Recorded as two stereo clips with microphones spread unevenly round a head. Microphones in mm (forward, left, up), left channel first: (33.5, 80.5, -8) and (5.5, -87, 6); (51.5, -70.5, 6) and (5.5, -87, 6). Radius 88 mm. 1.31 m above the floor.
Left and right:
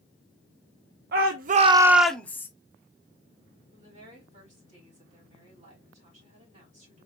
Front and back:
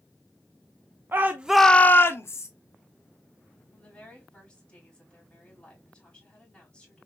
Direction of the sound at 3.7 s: 50° right.